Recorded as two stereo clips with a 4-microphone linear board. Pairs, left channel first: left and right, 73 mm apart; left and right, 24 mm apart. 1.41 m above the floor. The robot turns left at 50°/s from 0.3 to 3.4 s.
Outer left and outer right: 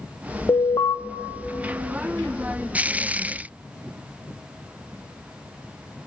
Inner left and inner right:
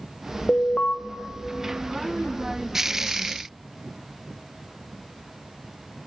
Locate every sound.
0.5 s an alarm: 50° left (ahead or behind), 0.6 m; by 0.9 s 70° left (ahead or behind), 0.6 m